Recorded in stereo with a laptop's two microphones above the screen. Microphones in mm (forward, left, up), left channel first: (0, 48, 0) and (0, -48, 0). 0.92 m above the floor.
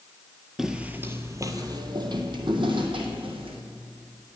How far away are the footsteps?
About 0.9 m.